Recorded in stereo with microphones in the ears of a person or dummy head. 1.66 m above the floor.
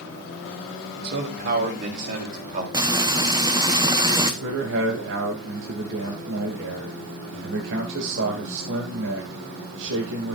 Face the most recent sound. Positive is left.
turn(degrees=-70)  # may be behind; listen again after turning